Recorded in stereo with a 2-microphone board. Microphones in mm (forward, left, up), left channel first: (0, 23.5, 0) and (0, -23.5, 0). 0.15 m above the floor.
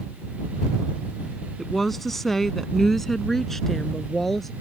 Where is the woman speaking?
5° left (ahead or behind).